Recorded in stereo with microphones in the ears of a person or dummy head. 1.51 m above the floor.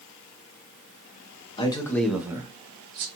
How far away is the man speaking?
About 0.7 m.